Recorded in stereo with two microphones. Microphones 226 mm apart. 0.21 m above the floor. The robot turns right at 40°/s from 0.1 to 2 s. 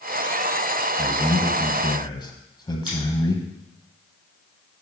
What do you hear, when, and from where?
1.0 s a man speaking: 10° left (ahead or behind), 1.2 m; by 3.5 s 20° left (ahead or behind), 1.2 m
2.9 s scissors: 80° right, 4.5 m